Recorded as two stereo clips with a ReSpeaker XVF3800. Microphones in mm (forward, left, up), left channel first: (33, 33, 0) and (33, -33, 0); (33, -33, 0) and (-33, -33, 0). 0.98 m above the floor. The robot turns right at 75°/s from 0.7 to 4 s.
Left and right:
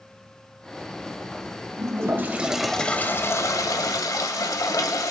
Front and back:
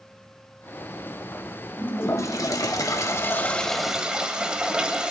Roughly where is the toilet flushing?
Ahead right.